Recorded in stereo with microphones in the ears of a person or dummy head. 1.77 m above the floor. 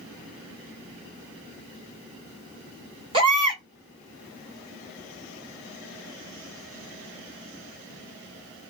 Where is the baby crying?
25° right (ahead or behind), 1.6 m.